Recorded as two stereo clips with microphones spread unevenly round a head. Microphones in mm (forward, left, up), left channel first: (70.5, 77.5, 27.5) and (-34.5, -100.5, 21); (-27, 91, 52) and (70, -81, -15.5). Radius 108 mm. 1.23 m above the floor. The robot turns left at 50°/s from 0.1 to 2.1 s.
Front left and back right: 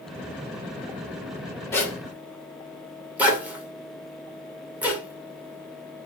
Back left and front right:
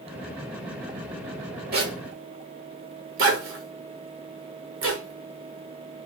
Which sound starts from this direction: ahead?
A zipper, at 1.7 s.